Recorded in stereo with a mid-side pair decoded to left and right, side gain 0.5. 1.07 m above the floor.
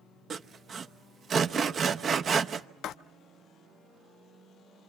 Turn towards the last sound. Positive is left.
turn(degrees=65)